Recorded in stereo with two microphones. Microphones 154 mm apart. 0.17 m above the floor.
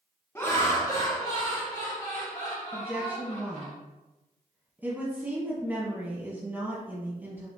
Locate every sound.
0.3 s laughter: 15° left (ahead or behind), 1.2 m; by 3.7 s 50° left (ahead or behind), 2.5 m
2.7 s a woman speaking: 15° right (ahead or behind), 1.1 m